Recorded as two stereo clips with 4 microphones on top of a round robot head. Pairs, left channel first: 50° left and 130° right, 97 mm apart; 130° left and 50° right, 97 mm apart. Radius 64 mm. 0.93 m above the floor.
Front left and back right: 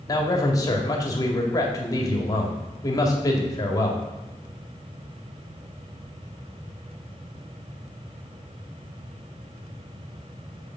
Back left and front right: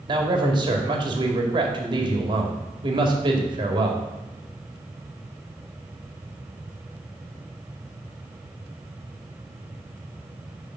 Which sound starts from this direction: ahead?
A man speaking, at 0.1 s.